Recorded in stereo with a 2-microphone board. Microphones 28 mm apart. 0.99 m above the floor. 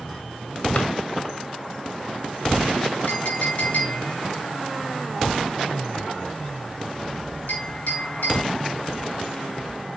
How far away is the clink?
About 4.5 m.